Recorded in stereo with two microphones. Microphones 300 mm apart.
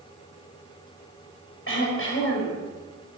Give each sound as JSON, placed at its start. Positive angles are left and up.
{"t": 1.7, "sound": "throat clearing", "side_deg": 40, "distance_m": 5.5}